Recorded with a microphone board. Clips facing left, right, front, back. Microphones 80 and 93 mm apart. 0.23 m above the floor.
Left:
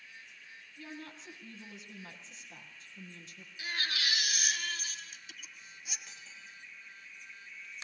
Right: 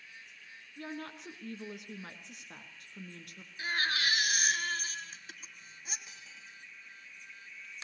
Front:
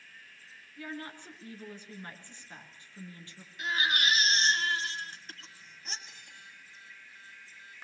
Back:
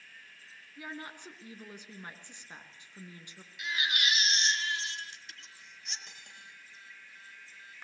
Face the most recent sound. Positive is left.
turn(degrees=-165)